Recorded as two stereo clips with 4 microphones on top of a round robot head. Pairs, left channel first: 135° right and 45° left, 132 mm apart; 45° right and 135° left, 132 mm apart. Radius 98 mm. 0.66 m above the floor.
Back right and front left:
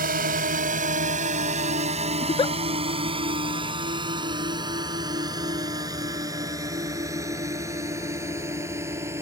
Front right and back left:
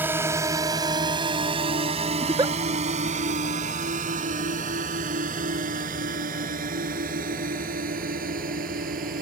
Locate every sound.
0.0 s a drone: 60° left; by 9.2 s 115° left
2.2 s a giggle: 175° right